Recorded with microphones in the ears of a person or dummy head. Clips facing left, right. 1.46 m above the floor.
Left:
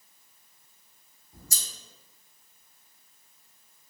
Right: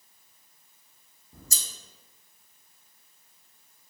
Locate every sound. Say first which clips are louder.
1.3 s scissors: right 1 dB; 75° right (ahead or behind), 0.9 m